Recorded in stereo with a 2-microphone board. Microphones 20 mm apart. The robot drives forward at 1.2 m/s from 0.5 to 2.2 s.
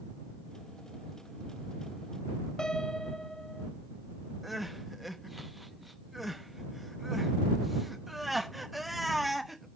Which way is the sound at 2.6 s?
40° left (ahead or behind).